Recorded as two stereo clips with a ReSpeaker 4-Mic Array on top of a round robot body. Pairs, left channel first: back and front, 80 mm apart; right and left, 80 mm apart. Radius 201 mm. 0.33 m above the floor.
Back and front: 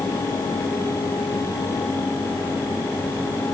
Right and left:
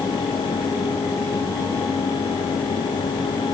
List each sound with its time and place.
Only background noise.